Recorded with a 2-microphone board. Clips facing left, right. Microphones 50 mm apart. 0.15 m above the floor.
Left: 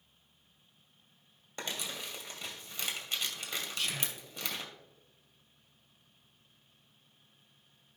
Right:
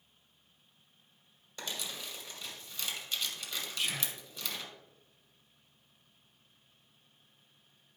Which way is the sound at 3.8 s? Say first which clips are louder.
Right 3 dB; 15° right (ahead or behind).